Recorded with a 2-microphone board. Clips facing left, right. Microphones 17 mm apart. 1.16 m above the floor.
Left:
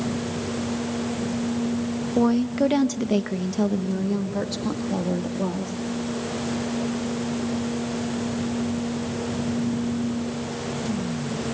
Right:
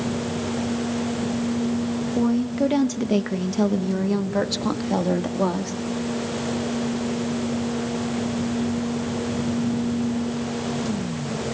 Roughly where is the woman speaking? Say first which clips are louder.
Left 2 dB; left.